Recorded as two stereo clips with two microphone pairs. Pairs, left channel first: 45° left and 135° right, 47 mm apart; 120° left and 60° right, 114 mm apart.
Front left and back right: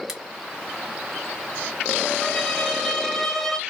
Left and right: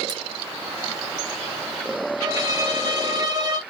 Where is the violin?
40° right, 0.6 m.